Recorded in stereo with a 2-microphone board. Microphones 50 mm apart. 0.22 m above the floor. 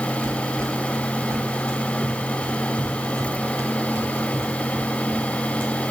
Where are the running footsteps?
85° right, 5 m; by 5.7 s 40° right (ahead or behind), 5.5 m.